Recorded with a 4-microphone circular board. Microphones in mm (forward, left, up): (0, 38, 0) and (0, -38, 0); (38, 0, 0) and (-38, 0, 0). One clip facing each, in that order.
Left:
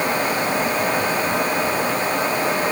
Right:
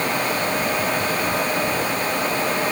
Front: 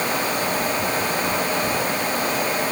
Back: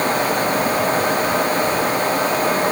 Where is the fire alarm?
I don't hear a fire alarm.